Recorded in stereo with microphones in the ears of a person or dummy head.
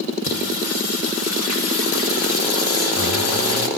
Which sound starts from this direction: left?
Singing, at 0.2 s.